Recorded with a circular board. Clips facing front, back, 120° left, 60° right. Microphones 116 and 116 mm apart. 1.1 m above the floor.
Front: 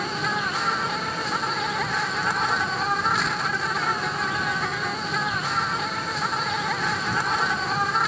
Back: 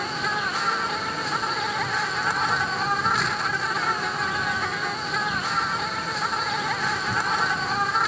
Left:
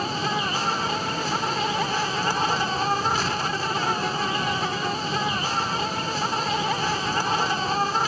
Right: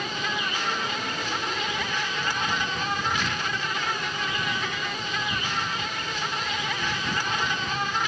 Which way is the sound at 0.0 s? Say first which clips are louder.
Front 1 dB, left 5 dB; 90° left.